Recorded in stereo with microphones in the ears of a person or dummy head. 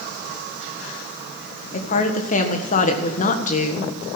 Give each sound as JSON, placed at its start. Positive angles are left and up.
{"t": 1.7, "sound": "a woman speaking", "side_deg": 40, "distance_m": 1.6}